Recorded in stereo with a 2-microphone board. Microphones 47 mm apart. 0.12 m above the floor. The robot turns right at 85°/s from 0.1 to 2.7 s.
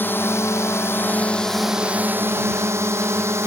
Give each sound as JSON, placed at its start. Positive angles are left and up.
{"t": 0.0, "sound": "a drone", "side_deg": 50}